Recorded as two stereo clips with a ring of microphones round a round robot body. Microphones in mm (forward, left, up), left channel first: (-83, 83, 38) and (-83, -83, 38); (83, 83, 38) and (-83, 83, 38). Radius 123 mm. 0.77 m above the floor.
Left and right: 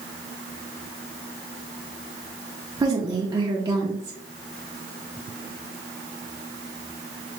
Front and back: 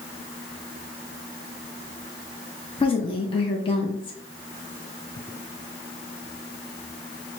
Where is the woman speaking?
30° right, 0.7 m.